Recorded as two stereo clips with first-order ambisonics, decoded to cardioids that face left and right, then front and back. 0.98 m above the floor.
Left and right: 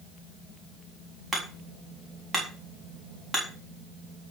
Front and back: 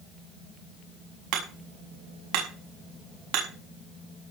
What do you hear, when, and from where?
1.3 s hammering: 170° right, 7 m